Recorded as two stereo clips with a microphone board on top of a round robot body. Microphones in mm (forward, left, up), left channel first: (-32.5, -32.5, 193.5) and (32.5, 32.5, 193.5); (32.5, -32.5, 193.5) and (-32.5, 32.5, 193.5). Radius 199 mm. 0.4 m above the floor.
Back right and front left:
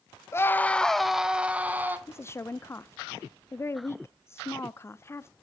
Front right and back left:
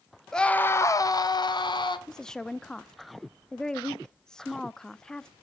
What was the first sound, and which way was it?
A scream, 125° right.